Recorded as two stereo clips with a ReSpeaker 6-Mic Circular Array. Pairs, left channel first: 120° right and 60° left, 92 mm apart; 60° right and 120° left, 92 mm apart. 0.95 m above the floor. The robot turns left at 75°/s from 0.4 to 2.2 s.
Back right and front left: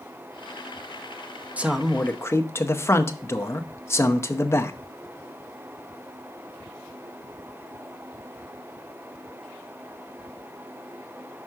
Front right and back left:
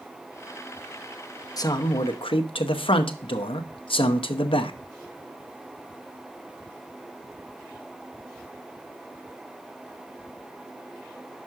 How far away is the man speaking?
About 0.8 m.